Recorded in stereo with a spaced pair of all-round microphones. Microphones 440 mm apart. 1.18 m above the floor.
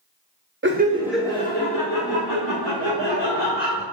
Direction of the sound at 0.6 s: 30° right (ahead or behind).